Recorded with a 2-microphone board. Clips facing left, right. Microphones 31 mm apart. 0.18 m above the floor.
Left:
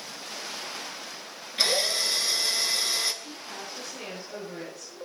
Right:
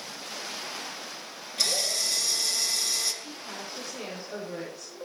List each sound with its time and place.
1.6 s a drill: 30° left (ahead or behind), 2.5 m
3.2 s a woman speaking: 15° right (ahead or behind), 7 m